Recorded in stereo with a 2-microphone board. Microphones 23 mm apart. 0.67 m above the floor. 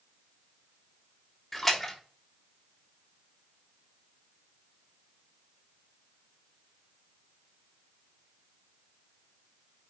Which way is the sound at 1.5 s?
10° left (ahead or behind).